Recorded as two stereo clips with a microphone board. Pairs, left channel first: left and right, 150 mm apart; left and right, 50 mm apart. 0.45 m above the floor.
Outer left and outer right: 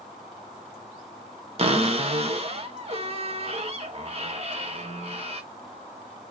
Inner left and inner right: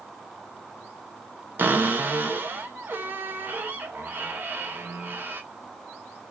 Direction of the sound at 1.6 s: 40° right (ahead or behind).